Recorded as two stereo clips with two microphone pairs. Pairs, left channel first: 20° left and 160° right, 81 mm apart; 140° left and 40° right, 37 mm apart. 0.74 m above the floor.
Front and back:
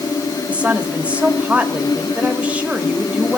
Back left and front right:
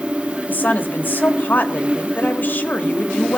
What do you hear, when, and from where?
0.5 s a woman speaking: 130° left, 1.8 m